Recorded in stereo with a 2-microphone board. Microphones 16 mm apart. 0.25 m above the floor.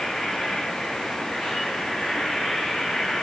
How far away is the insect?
About 6.5 m.